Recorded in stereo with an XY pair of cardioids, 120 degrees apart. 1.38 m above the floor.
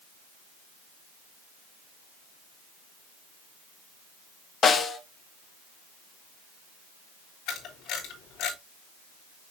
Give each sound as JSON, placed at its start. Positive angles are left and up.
{"t": 4.6, "sound": "a snare drum", "azimuth_deg": 40, "distance_m": 1.0}
{"t": 7.5, "sound": "a camera shutter", "azimuth_deg": 70, "distance_m": 3.0}